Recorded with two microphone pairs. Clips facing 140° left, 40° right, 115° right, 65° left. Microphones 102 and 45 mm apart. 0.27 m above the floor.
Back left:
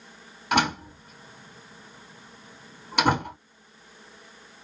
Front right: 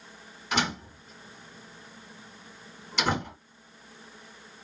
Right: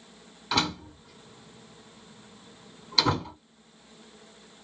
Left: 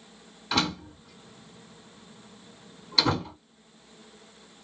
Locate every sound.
0.5 s a door slam: 155° left, 2 m